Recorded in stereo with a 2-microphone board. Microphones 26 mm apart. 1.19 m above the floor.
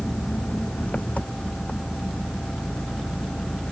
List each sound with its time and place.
0.0 s an engine running: 70° left (ahead or behind)